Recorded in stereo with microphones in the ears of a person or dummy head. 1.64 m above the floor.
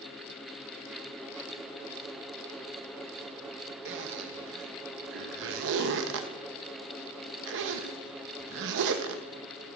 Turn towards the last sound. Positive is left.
turn(degrees=-65)  # may be behind; listen again after turning